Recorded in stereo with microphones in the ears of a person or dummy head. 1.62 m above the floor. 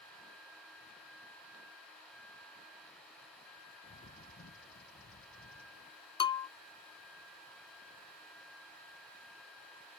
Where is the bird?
50° left (ahead or behind).